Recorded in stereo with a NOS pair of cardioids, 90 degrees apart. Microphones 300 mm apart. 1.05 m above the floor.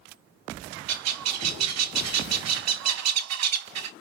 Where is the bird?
60° right, 0.7 m.